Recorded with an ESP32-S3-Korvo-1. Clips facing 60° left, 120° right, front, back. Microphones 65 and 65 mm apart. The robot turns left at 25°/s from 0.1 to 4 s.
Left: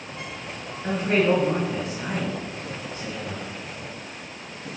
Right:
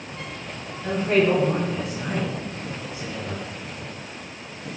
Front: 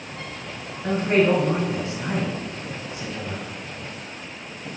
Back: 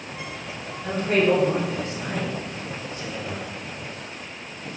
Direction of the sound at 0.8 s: 5° right.